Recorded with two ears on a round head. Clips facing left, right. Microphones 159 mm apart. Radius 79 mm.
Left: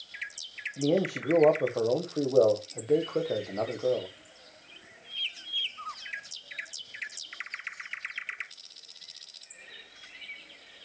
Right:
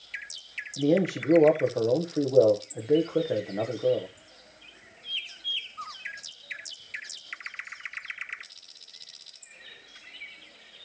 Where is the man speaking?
10° right (ahead or behind), 1.1 m.